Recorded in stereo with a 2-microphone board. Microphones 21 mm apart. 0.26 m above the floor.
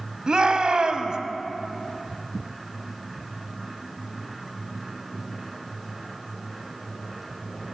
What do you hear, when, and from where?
0.3 s a shout: 45° right (ahead or behind), 1.3 m